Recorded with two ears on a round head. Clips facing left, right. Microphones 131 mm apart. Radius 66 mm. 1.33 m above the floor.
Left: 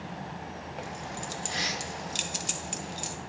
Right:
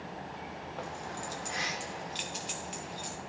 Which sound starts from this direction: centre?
Keys jangling, at 0.8 s.